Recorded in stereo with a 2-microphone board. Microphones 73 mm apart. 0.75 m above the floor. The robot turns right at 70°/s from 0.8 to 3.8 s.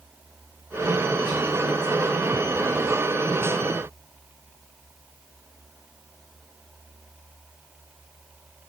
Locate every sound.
Only background noise.